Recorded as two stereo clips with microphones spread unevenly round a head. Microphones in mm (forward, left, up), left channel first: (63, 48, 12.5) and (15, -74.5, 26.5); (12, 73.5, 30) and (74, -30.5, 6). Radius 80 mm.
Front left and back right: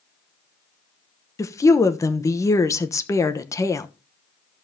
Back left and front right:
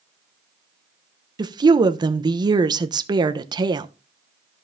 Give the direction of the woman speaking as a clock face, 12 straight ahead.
12 o'clock.